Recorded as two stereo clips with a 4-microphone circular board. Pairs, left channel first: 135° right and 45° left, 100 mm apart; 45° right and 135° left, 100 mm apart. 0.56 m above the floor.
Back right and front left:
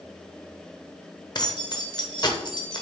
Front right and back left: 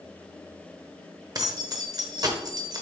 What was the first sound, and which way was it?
Keys jangling, straight behind.